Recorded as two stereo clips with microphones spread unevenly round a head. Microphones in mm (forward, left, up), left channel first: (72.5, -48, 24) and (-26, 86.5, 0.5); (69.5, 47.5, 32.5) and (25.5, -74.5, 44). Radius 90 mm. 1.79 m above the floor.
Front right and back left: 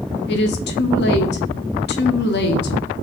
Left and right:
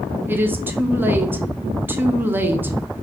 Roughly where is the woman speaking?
Ahead right.